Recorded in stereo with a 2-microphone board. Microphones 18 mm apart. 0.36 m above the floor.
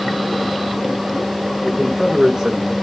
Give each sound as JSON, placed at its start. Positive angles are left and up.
{"t": 1.6, "sound": "a man speaking", "side_deg": -40, "distance_m": 7.0}